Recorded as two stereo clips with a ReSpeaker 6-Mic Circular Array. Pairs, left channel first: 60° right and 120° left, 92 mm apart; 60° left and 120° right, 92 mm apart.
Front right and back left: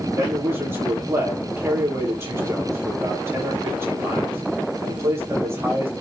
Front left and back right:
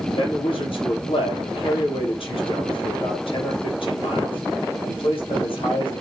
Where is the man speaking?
55° left, 6.5 m.